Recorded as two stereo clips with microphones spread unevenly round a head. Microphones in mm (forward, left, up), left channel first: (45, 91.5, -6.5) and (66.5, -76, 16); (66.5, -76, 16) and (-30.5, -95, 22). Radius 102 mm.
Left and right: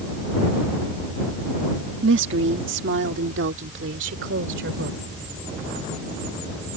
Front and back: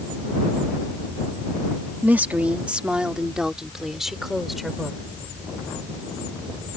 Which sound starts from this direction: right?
A woman speaking, at 2.0 s.